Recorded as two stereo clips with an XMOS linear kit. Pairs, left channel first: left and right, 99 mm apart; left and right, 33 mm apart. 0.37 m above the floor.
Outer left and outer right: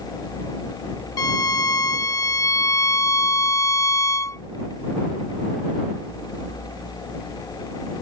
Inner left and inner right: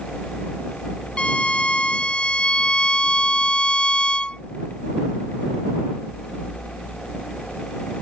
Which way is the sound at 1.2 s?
35° left (ahead or behind).